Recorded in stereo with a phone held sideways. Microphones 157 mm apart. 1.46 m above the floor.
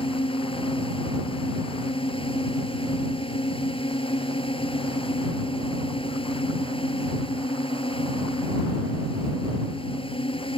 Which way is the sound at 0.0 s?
35° left (ahead or behind).